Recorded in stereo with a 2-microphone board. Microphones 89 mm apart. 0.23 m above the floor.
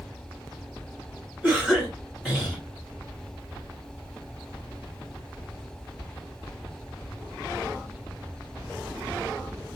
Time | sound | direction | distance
1.4 | a cough | centre (ahead or behind) | 2.5 m